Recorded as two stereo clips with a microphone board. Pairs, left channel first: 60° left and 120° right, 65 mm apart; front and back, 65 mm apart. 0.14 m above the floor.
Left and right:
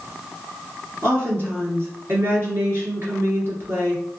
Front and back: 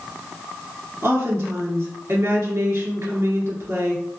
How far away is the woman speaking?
About 1.8 m.